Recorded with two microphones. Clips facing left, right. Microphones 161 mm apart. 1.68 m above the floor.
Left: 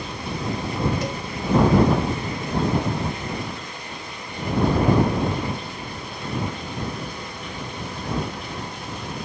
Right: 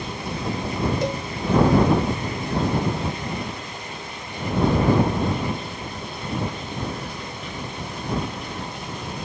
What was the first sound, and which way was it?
A cowbell, 30° right (ahead or behind).